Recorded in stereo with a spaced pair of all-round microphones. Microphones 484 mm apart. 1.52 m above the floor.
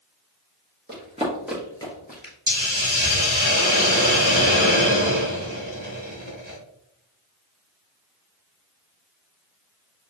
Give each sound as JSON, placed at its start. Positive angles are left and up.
{"t": 0.9, "sound": "running footsteps", "side_deg": -20, "distance_m": 1.6}
{"t": 2.5, "sound": "a hiss", "side_deg": -35, "distance_m": 1.6}